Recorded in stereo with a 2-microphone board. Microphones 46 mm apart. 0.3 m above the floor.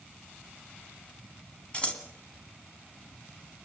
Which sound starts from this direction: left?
Scissors, at 1.7 s.